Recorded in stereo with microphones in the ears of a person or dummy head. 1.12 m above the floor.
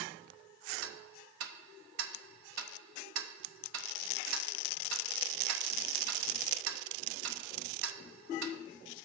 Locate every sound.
0.8 s ticking: 75° right (ahead or behind), 0.6 m